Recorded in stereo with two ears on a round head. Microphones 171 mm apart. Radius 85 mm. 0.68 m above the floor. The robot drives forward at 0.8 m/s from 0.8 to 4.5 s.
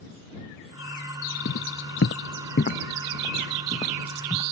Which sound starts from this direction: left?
Footsteps, at 1.4 s.